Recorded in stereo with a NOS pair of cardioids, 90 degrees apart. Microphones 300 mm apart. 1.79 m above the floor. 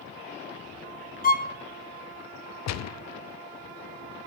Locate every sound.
1.2 s a violin: 30° left, 1.3 m
2.7 s a gunshot: 60° left, 0.6 m